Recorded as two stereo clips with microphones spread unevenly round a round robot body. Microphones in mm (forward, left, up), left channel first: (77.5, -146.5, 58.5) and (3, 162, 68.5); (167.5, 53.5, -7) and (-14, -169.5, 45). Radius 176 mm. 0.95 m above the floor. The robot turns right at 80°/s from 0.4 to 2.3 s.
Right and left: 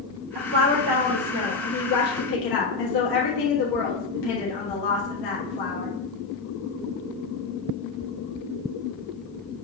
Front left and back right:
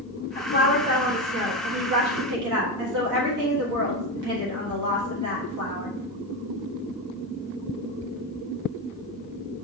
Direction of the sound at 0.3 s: 110° left.